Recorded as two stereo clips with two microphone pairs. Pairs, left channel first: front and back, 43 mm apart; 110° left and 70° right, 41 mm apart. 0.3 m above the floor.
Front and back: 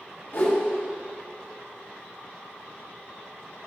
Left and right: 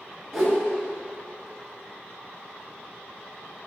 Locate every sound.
0.3 s a whoosh: 20° left, 2.5 m